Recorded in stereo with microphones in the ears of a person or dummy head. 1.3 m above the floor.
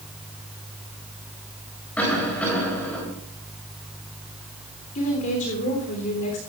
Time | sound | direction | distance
2.0 | a cough | 5° left (ahead or behind) | 8.5 m
5.0 | a woman speaking | 40° left (ahead or behind) | 3.5 m